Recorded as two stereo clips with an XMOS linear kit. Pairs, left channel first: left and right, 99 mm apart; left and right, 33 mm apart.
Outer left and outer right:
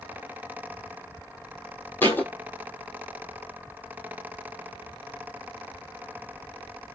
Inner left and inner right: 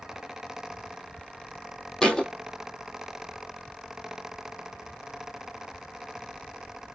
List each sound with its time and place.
2.0 s a thud: 20° left (ahead or behind), 1.3 m